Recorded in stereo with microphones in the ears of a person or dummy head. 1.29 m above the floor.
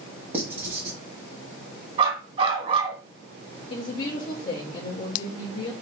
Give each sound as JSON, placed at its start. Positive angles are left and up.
{"t": 0.3, "sound": "writing", "side_deg": -10, "distance_m": 1.4}
{"t": 2.0, "sound": "a dog barking", "side_deg": -30, "distance_m": 2.0}
{"t": 3.7, "sound": "a woman speaking", "side_deg": 35, "distance_m": 1.0}